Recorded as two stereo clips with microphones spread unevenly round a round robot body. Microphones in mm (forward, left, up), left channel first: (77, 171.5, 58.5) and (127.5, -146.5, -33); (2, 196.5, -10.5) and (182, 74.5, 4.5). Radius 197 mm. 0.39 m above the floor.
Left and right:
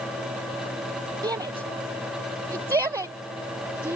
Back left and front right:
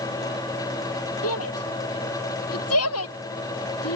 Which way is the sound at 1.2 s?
160° right.